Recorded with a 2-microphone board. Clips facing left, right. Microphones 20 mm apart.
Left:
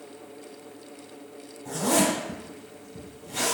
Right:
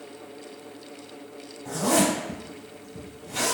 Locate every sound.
1.6 s a zipper: 30° right (ahead or behind), 1.4 m